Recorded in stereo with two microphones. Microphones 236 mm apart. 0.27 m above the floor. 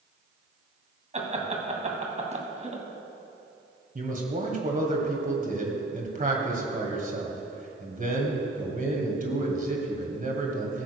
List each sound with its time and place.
1.1 s laughter: 30° right (ahead or behind), 1.9 m
4.0 s a man speaking: 35° right (ahead or behind), 2.0 m